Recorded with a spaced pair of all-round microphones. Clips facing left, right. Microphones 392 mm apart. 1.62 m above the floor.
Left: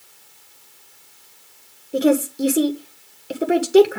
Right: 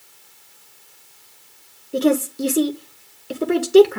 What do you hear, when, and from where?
1.9 s a woman speaking: 5° right (ahead or behind), 1.4 m